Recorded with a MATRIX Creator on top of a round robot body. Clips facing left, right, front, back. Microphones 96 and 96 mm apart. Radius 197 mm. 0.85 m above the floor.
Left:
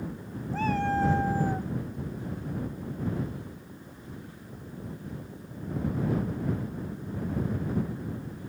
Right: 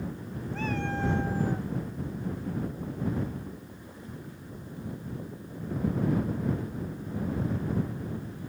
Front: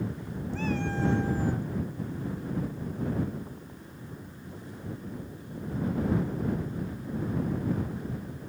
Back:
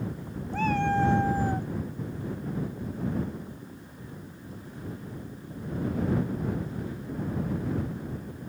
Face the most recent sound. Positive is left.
turn(degrees=140)